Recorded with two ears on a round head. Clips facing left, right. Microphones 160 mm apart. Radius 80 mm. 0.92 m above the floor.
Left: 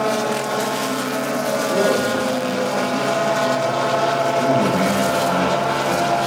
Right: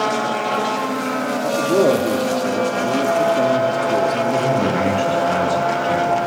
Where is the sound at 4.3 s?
30° right (ahead or behind), 6 m.